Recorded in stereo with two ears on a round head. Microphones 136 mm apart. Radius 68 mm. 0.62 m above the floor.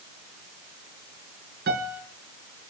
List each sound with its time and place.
1.7 s a piano: 70° right (ahead or behind), 5 m